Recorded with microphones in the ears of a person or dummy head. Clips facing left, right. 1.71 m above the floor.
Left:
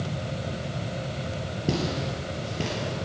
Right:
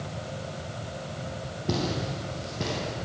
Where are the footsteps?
50° left (ahead or behind), 2.5 m; by 2.9 s 40° left (ahead or behind), 3 m.